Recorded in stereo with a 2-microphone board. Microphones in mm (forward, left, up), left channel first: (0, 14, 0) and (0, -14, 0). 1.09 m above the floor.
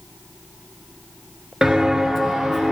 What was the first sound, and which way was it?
Footsteps, 15° right (ahead or behind).